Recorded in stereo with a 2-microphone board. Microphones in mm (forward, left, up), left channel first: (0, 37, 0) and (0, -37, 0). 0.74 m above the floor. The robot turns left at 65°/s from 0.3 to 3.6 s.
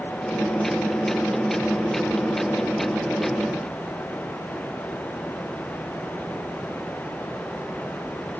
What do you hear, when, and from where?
Only background noise.